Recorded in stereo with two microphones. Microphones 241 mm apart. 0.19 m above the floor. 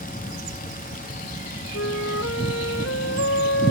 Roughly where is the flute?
Left.